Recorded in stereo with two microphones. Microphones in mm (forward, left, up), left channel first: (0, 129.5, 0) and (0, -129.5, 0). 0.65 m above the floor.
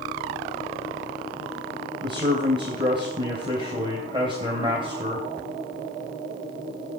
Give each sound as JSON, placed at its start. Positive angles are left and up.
{"t": 2.0, "sound": "a man speaking", "side_deg": -20, "distance_m": 3.0}